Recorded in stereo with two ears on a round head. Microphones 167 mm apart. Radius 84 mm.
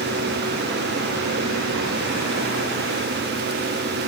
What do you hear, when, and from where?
Only background noise.